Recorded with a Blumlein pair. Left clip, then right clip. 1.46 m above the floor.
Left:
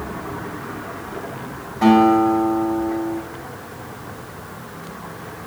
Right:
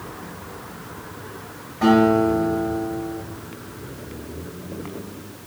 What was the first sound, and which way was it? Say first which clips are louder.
A guitar: left 3 dB; 10° left.